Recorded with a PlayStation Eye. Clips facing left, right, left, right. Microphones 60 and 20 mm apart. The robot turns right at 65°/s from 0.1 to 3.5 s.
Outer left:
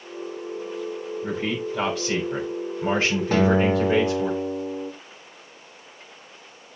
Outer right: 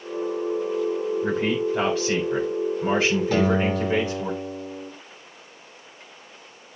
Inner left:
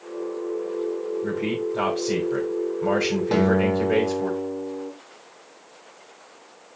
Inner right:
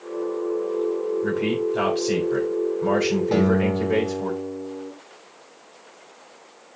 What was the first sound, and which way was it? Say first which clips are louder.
A man speaking: outer right 1 dB, inner right 2 dB; 80° right.